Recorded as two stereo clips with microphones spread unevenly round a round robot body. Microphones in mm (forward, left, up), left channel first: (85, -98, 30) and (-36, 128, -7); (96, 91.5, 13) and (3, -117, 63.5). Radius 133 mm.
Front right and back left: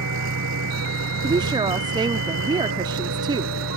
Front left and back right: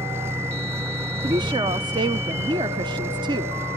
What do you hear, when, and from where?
0.0 s an engine running: 165° left
1.2 s a woman speaking: 170° left